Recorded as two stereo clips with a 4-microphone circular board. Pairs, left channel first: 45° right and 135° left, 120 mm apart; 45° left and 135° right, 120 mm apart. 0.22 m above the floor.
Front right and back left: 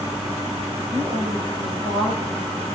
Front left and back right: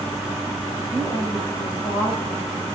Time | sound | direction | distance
0.9 | a woman speaking | 105° left | 8.5 m